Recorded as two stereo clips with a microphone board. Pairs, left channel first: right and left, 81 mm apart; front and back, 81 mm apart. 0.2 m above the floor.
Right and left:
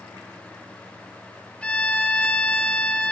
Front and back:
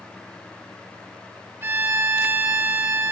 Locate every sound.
1.6 s a violin: 150° right, 0.9 m